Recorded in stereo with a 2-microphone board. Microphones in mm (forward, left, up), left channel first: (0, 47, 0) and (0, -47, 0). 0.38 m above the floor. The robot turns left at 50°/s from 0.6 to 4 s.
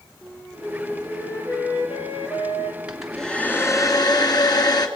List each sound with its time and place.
0.2 s a flute: 175° right, 3 m; by 2.8 s 75° left, 3 m
2.9 s a hair dryer: 170° right, 2.5 m; by 4.9 s 135° left, 2.5 m